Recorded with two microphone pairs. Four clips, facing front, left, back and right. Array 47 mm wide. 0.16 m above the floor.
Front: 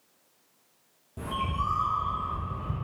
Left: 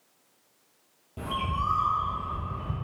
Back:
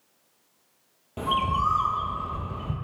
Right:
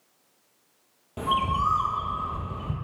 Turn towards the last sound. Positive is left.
turn(degrees=-150)